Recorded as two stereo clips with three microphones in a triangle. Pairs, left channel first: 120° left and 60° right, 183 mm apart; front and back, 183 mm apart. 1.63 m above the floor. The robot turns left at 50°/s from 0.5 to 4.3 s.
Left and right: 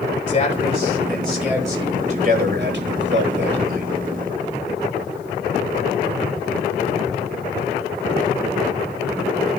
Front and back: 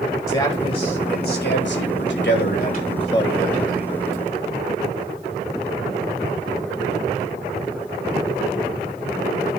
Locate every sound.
0.3 s a man speaking: 75° left, 3.5 m; by 3.9 s 100° right, 3.5 m